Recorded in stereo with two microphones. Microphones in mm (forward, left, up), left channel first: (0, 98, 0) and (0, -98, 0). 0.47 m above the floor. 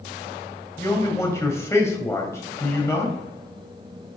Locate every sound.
0.8 s a man speaking: 15° left (ahead or behind), 2 m